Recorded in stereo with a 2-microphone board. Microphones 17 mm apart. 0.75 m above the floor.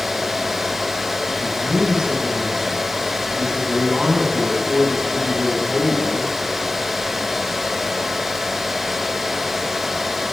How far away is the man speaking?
About 7.5 m.